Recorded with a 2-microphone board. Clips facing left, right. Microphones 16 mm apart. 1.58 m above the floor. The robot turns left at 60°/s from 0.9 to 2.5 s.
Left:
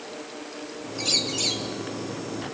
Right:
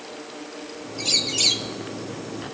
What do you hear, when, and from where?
1.0 s a bird: 5° right, 0.9 m; by 1.7 s 45° right, 0.9 m